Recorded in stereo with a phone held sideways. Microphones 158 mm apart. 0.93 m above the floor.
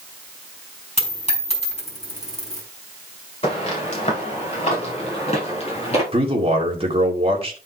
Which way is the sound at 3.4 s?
40° left (ahead or behind).